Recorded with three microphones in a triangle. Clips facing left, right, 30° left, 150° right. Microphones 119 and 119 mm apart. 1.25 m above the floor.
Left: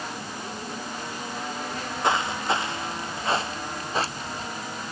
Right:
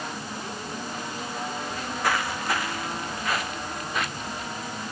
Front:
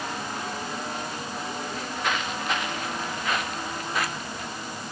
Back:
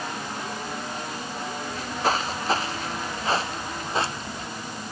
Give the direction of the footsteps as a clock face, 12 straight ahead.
7 o'clock.